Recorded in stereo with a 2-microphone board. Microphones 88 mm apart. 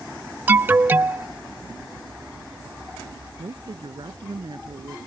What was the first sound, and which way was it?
An alarm, 25° right (ahead or behind).